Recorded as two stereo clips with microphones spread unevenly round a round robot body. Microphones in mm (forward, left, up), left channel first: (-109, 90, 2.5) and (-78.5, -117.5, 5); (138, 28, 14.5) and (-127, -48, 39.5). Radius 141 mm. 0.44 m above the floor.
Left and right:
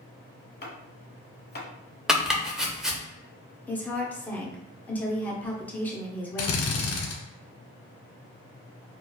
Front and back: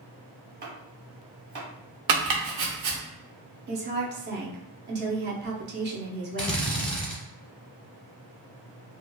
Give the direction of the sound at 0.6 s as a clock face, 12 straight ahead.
7 o'clock.